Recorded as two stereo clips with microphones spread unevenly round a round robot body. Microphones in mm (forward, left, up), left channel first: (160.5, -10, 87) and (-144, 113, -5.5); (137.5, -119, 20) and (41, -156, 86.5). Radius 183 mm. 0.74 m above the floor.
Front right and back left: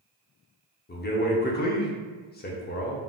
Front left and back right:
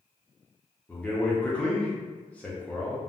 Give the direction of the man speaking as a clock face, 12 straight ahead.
10 o'clock.